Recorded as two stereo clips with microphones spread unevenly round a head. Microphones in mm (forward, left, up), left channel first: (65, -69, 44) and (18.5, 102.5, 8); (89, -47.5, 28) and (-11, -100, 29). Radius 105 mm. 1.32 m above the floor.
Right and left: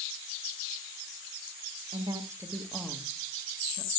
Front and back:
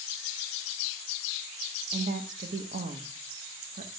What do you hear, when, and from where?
1.9 s a woman speaking: 175° left, 1.1 m; by 3.9 s 140° right, 1.4 m